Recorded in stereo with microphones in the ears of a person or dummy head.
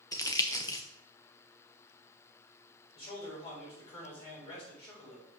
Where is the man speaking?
35° left (ahead or behind), 4.5 m.